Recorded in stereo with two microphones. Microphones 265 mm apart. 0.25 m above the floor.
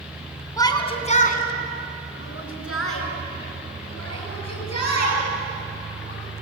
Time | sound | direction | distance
0.6 | a shout | 15° left (ahead or behind) | 2.5 m